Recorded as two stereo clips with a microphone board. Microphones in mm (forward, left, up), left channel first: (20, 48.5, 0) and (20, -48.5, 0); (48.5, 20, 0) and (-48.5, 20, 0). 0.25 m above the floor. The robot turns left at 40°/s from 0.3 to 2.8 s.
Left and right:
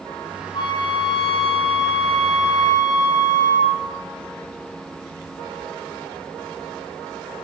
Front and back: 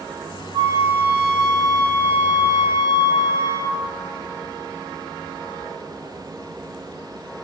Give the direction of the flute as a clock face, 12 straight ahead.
8 o'clock.